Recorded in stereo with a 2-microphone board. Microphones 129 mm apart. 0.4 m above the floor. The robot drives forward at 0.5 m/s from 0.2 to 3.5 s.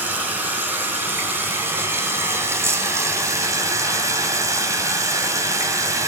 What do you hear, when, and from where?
0.0 s running water: 15° right (ahead or behind), 3.5 m; by 6.1 s 25° right (ahead or behind), 2 m